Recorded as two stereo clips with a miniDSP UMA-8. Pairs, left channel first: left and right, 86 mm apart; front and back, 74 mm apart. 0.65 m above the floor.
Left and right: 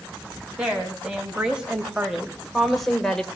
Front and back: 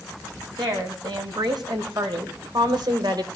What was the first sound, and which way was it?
A woman speaking, 165° right.